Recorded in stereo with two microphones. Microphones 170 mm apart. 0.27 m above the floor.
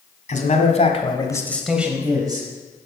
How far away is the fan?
I don't hear a fan.